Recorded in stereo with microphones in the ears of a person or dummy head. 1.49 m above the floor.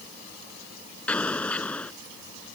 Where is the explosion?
5° left (ahead or behind).